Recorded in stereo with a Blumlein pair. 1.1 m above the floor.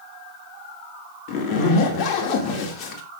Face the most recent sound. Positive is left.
turn(degrees=35)